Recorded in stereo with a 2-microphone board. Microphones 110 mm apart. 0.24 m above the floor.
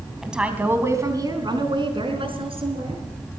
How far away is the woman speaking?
About 2.0 m.